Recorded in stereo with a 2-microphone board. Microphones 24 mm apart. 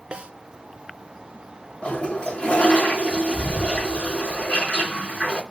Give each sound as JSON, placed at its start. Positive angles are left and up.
{"t": 0.1, "sound": "a snare drum", "side_deg": -50, "distance_m": 1.0}
{"t": 1.8, "sound": "a toilet flushing", "side_deg": 60, "distance_m": 2.5}